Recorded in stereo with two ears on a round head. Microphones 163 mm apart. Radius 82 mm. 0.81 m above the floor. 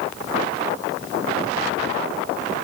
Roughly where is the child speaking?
I don't hear a child speaking.